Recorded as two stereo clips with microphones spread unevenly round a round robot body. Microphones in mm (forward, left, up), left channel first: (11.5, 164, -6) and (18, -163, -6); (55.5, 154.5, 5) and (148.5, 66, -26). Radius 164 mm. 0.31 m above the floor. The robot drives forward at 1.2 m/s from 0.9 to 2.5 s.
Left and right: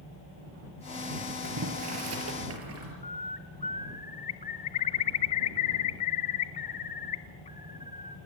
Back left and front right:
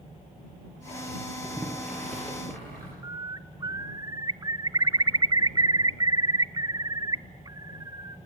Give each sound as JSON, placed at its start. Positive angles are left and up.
{"t": 1.4, "sound": "boiling", "azimuth_deg": -130, "distance_m": 4.0}
{"t": 3.0, "sound": "a bird", "azimuth_deg": 20, "distance_m": 0.7}